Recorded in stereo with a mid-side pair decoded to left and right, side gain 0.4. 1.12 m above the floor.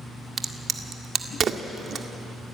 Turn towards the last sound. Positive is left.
turn(degrees=-55)